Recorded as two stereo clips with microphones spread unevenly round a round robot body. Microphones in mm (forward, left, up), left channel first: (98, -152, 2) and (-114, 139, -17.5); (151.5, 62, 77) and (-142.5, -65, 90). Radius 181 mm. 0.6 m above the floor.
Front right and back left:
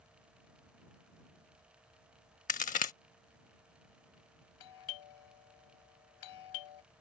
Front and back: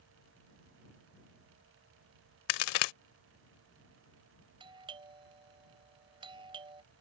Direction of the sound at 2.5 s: 15° left.